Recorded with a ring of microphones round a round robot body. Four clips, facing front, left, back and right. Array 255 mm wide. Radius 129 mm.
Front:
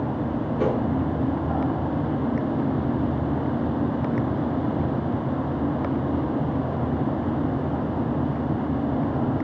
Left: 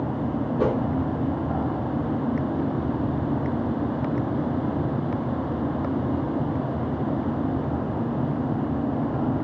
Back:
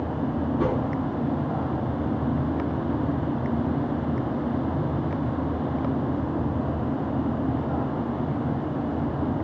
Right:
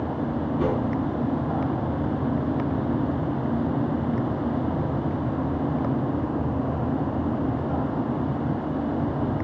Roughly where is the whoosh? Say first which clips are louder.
Left 2 dB, front 3 dB; ahead left.